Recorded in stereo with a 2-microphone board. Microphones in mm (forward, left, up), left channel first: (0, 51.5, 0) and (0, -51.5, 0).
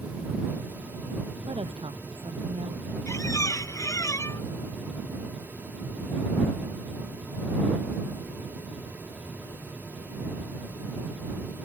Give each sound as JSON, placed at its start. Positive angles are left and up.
{"t": 1.5, "sound": "a woman speaking", "side_deg": -60}
{"t": 3.1, "sound": "a squeak", "side_deg": 30}